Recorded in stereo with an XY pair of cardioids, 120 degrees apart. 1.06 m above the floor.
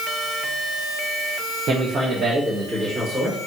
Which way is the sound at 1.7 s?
55° right.